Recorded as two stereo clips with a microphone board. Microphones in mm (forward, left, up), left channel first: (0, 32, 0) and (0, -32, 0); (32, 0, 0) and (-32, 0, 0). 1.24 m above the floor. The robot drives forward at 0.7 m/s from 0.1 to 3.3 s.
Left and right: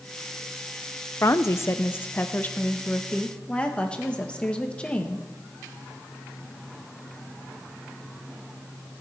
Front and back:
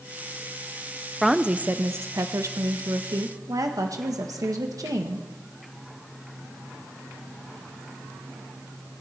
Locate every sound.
1.2 s a woman speaking: 90° left, 0.6 m; by 5.2 s 165° left, 1.6 m